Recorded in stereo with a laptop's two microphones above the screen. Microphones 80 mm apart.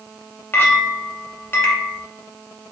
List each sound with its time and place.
0.5 s a clink: 30° left (ahead or behind), 0.5 m